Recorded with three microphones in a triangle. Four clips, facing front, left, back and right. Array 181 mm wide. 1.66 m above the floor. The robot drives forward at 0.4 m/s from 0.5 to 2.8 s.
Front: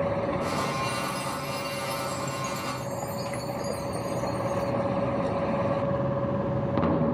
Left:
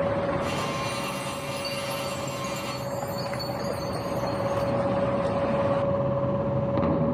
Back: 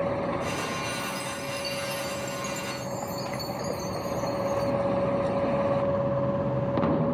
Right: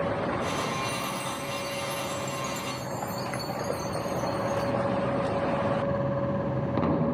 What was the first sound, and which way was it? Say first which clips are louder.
A chime: left 1 dB, front 2 dB; 145° right.